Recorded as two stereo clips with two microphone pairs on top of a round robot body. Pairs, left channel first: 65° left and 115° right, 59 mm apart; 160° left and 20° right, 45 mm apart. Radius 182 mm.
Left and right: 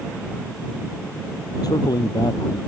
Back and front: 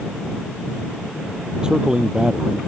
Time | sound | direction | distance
1.6 | a man speaking | 55° left | ?